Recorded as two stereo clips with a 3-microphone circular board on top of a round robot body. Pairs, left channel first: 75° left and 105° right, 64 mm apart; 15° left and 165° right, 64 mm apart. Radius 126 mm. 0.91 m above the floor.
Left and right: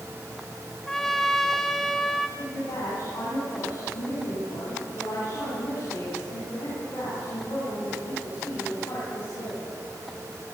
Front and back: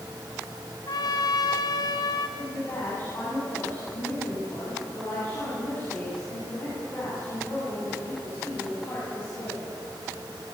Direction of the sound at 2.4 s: 65° left.